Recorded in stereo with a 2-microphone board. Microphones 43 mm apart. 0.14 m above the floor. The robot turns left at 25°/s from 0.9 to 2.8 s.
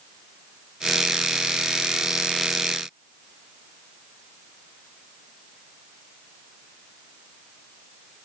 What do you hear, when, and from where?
Only background noise.